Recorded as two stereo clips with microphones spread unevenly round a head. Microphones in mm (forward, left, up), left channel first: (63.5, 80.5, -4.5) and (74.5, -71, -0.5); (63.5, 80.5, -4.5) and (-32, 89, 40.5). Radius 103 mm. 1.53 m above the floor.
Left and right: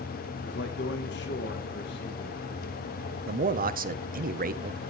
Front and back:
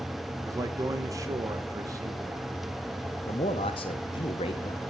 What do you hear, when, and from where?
0.4 s a man speaking: 125° left, 1.4 m
3.3 s a man speaking: 55° right, 1.1 m